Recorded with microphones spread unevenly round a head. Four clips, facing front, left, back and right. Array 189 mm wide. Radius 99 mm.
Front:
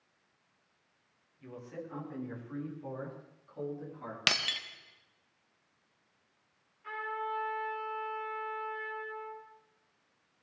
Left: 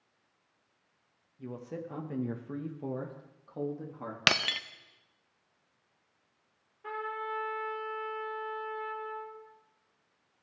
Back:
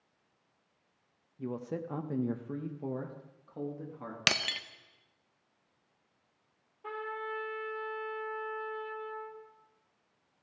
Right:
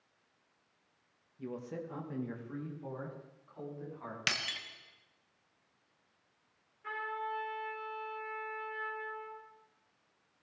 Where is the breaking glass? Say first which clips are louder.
Left 11 dB, back 2 dB; 95° left, 0.7 m.